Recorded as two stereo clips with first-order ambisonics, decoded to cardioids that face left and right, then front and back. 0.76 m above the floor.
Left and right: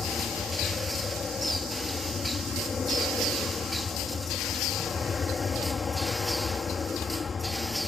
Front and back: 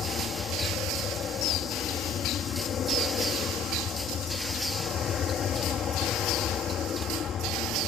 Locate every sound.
0.0 s an aircraft: 30° left